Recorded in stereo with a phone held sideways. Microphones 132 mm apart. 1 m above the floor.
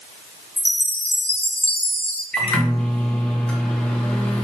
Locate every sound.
0.6 s a chime: 45° left (ahead or behind), 0.5 m
2.3 s a microwave: 10° left (ahead or behind), 0.9 m